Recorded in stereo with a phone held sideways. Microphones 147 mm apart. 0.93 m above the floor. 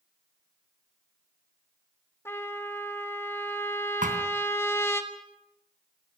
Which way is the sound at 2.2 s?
15° left (ahead or behind).